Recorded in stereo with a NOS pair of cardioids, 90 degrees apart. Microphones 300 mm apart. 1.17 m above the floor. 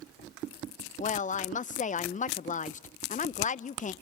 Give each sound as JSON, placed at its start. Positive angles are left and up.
{"t": 1.0, "sound": "a woman speaking", "azimuth_deg": 25, "distance_m": 0.6}